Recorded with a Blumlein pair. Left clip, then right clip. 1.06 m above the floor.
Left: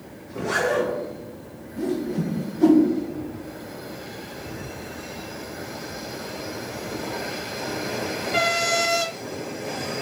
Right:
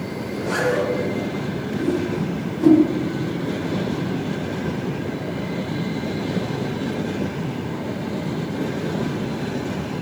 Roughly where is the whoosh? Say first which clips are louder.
Right 2 dB; ahead.